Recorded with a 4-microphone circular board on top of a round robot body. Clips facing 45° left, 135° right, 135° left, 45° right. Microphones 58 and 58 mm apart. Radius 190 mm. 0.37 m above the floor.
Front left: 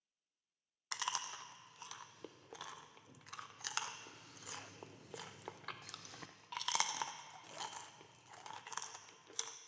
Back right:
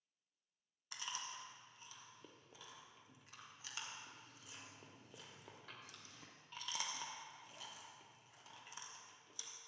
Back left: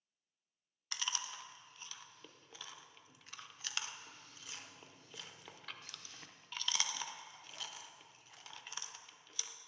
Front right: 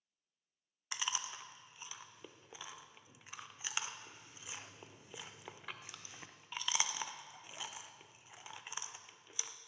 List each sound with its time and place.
0.9 s chewing: 30° left, 0.6 m